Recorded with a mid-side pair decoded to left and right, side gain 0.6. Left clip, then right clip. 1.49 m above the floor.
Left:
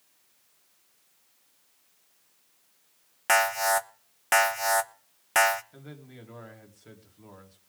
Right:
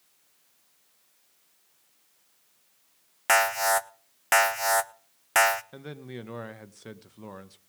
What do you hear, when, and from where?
3.3 s an alarm: 10° right, 0.8 m
5.7 s a man speaking: 65° right, 1.7 m